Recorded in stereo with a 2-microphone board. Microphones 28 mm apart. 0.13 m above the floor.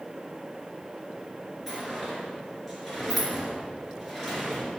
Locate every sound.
1.7 s a sliding door: 5° right (ahead or behind), 2.5 m